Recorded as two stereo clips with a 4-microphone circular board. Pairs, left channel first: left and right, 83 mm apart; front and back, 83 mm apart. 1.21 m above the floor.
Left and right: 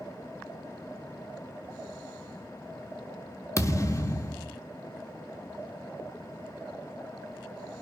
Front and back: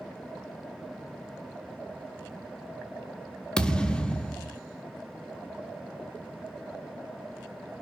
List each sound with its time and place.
3.6 s a thud: 70° left, 0.9 m